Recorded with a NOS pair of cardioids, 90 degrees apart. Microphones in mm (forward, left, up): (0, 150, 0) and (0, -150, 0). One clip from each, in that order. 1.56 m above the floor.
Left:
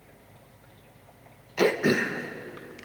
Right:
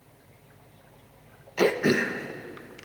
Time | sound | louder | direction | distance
1.6 | throat clearing | even | 5° right | 1.3 m